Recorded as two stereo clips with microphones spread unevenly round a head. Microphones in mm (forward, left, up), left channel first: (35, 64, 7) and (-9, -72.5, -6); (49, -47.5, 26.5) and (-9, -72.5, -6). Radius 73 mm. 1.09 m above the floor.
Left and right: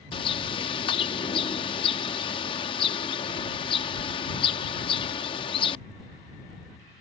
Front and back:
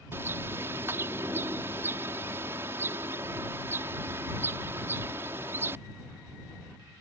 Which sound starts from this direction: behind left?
A bird, at 0.1 s.